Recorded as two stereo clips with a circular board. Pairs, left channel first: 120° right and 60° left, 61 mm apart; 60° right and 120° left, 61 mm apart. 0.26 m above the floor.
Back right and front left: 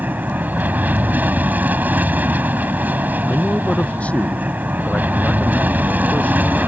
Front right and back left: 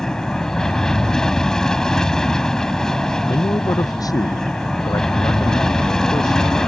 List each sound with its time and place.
0.0 s an aircraft: 15° left
3.3 s a man speaking: 50° right